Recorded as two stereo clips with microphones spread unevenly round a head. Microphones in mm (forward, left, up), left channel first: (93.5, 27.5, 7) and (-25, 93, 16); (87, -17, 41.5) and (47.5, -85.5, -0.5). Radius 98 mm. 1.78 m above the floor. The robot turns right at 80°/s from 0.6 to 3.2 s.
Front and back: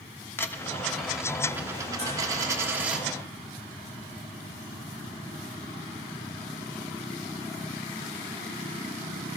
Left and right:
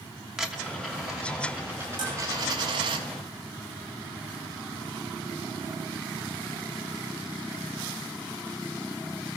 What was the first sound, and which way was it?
A dropped coin, 30° left.